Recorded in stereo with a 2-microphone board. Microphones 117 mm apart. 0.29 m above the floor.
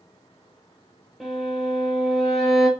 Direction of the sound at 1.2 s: Centre (ahead or behind).